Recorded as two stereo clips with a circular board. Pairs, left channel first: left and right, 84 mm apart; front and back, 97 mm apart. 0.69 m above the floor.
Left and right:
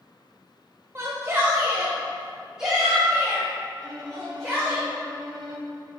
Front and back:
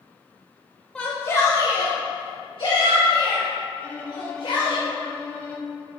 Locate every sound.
0.9 s a shout: 75° right, 0.6 m; by 4.8 s straight ahead, 2.5 m
3.8 s a violin: 70° right, 0.9 m